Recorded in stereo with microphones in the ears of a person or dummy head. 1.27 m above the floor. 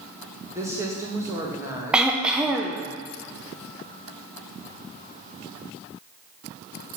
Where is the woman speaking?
25° right (ahead or behind), 1.7 m.